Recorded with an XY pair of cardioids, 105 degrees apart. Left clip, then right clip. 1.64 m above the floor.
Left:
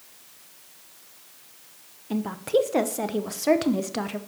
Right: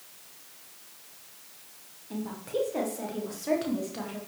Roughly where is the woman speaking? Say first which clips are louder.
Left 9 dB; ahead left.